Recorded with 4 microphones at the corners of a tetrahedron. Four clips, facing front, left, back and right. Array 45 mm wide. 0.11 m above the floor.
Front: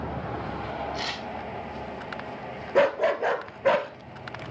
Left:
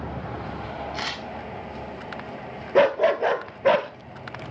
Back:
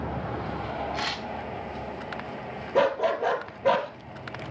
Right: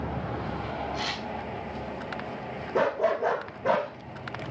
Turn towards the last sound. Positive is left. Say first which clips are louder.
# left 6 dB, front 1 dB
turn(degrees=75)